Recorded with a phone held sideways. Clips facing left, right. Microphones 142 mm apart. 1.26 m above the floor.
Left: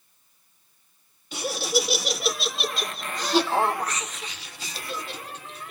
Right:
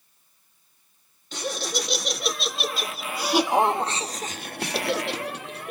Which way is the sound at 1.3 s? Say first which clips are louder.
Left 4 dB; 10° left (ahead or behind).